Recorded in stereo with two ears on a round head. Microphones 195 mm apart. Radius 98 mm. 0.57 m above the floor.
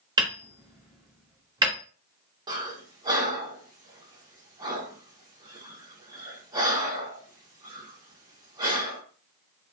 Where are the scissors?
No scissors in this recording.